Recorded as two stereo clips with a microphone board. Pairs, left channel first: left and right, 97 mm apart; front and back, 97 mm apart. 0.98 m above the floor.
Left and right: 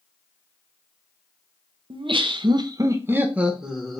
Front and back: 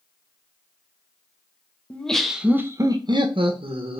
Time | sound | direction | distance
1.9 | laughter | 75° right | 0.6 m